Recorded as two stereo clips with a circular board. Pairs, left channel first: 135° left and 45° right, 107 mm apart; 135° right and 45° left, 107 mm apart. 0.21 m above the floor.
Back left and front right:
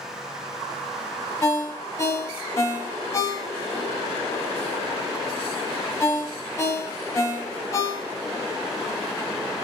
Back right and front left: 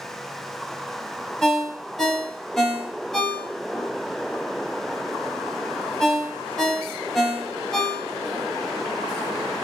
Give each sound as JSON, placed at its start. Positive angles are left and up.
{"t": 1.4, "sound": "a ringtone", "azimuth_deg": 145, "distance_m": 0.6}